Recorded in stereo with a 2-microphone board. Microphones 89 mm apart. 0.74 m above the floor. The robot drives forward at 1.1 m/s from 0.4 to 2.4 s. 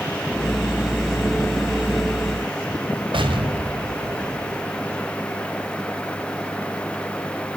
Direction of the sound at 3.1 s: 70° right (ahead or behind).